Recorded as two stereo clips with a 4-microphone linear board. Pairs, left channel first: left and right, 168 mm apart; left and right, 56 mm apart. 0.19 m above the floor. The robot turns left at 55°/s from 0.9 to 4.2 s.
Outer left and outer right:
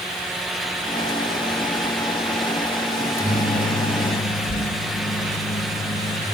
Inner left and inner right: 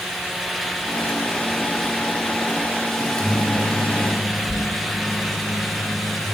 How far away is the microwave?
About 2.5 m.